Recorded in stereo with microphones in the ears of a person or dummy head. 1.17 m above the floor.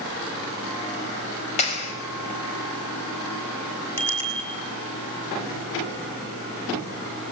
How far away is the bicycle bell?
About 6 m.